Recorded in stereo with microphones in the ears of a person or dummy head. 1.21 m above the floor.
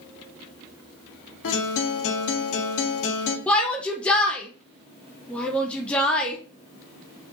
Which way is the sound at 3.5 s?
5° left (ahead or behind).